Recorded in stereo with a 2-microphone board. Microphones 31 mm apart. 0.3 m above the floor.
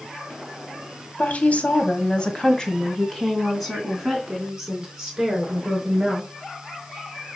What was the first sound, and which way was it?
A woman speaking, 50° left (ahead or behind).